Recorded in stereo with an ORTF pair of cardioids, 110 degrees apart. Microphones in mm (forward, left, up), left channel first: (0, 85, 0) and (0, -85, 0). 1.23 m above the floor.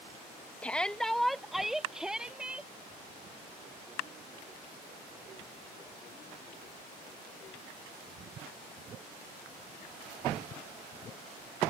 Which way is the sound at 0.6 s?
10° left.